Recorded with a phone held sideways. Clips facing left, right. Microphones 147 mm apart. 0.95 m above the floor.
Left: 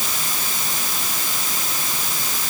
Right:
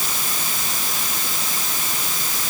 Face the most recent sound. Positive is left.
No sound to turn to.